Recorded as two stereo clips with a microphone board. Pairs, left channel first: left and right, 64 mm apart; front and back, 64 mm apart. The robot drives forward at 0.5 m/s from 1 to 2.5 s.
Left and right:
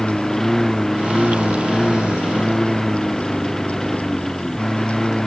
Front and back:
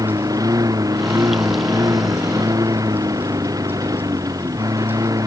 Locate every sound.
0.0 s a lawn mower: 175° left